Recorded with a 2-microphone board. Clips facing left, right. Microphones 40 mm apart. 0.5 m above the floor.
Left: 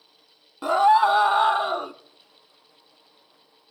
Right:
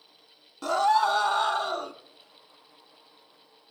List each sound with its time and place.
0.6 s a scream: 20° left (ahead or behind), 0.7 m